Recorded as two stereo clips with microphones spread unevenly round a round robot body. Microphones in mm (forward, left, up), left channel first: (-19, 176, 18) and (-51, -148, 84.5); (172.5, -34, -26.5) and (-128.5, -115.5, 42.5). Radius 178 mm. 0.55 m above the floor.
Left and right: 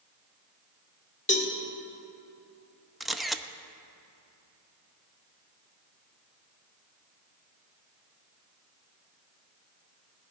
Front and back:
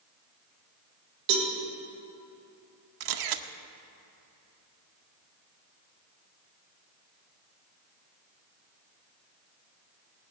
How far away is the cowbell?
About 1.9 m.